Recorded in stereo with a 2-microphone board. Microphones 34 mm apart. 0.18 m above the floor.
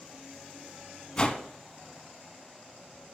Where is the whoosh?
25° left (ahead or behind), 0.6 m.